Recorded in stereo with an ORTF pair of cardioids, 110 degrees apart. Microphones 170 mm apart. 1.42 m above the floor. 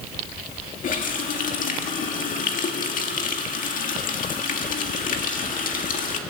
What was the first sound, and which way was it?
A running tap, 50° left.